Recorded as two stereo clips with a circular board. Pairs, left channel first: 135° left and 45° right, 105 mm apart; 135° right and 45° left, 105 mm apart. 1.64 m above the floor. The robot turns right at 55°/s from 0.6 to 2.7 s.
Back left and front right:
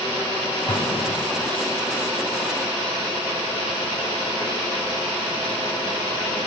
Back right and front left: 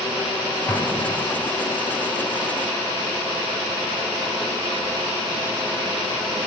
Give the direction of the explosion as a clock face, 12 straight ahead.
7 o'clock.